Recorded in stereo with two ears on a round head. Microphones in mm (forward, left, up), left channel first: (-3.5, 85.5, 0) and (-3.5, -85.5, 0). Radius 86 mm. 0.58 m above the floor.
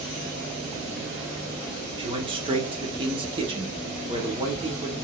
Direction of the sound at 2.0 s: 25° right (ahead or behind).